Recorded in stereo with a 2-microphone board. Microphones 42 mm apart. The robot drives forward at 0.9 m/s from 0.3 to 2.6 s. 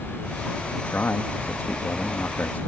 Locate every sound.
0.8 s a man speaking: 60° left (ahead or behind); by 2.6 s 55° left (ahead or behind)